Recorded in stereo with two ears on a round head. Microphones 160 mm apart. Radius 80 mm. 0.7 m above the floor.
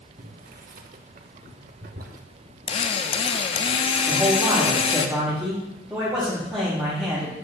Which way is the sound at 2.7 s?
30° left (ahead or behind).